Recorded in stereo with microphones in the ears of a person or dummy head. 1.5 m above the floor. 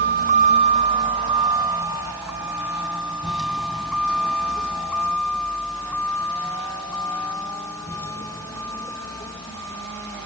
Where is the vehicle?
50° right (ahead or behind); by 10.3 s 20° left (ahead or behind).